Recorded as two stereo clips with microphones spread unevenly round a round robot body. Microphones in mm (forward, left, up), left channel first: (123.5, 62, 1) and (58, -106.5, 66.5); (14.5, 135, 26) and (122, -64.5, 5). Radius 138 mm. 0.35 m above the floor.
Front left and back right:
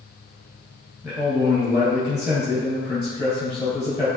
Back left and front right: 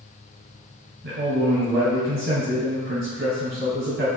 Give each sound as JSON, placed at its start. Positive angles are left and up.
{"t": 1.0, "sound": "a man speaking", "azimuth_deg": -25, "distance_m": 1.9}